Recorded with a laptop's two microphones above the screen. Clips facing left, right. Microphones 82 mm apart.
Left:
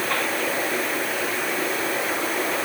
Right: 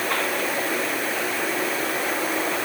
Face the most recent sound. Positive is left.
No sound to turn to.